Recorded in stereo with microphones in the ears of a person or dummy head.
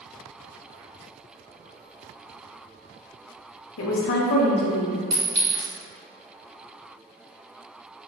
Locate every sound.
3.8 s a woman speaking: 80° left, 0.7 m; by 5.0 s 15° left (ahead or behind), 1.1 m
5.1 s a clink: 35° right (ahead or behind), 1.6 m